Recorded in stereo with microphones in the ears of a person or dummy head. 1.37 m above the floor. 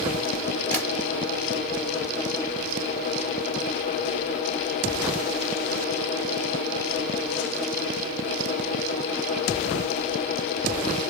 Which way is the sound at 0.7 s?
15° left (ahead or behind).